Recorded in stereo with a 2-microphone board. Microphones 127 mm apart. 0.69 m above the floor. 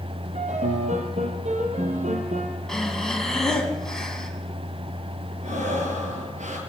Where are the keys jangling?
No keys jangling in this recording.